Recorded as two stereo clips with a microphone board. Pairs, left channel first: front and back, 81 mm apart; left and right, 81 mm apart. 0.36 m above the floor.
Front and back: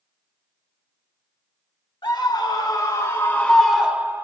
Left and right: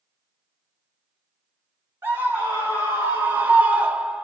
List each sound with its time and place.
2.0 s a scream: 25° right, 2.5 m; by 4.2 s 165° right, 1.4 m